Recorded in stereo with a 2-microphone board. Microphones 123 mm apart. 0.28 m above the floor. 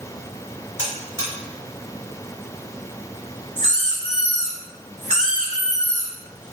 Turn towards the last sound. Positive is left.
turn(degrees=-75)  # may be behind; listen again after turning